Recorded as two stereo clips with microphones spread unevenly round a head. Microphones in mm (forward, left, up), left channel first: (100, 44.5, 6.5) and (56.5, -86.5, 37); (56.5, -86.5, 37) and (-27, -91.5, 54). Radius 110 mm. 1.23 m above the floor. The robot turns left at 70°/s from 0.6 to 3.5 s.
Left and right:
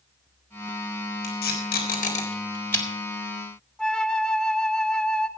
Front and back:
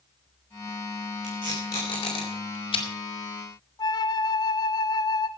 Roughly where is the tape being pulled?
Left.